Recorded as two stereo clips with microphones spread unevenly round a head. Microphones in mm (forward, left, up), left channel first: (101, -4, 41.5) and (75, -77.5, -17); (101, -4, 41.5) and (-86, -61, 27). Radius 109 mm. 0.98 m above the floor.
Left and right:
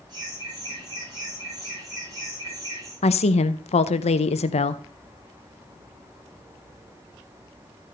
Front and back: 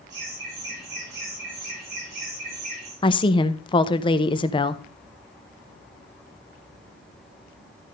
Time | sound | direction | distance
0.1 | laughter | 135° right | 5.5 m
3.0 | a woman speaking | 75° left | 0.6 m